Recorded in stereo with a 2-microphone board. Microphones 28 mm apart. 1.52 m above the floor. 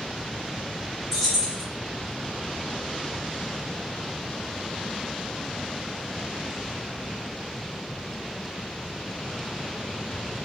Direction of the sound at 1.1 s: 10° right (ahead or behind).